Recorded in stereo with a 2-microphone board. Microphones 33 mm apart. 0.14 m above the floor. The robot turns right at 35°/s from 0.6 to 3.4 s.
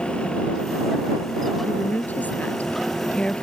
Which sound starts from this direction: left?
A woman speaking, at 1.6 s.